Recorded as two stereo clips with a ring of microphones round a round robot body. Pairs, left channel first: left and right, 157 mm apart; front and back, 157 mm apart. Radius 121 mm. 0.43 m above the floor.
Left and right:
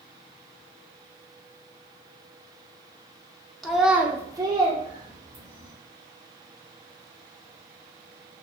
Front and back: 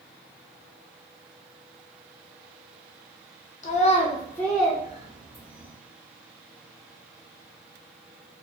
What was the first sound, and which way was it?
A child speaking, straight ahead.